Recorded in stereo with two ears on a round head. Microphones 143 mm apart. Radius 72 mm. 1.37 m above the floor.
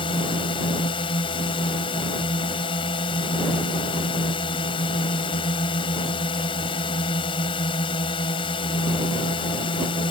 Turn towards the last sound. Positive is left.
turn(degrees=30)  # may be behind; listen again after turning